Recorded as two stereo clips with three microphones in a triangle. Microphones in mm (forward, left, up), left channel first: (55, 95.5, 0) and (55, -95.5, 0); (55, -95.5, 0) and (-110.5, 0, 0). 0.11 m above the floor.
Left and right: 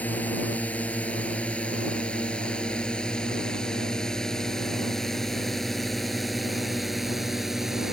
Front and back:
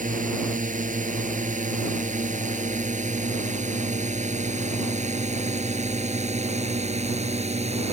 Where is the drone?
170° left; by 8.0 s 175° right.